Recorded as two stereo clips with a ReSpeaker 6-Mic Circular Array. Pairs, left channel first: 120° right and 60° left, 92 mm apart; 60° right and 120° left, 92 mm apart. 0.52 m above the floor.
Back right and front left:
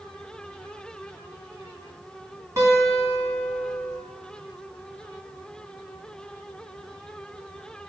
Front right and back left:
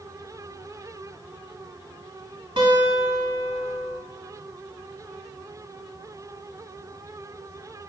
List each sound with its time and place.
2.6 s a guitar: 115° left, 1.1 m